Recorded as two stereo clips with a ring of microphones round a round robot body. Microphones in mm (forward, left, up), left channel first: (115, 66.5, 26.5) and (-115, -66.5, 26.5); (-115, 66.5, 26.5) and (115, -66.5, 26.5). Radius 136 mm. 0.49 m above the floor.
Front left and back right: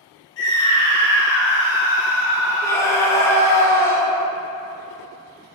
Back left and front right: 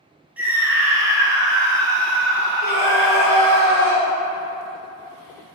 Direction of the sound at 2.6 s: 105° left.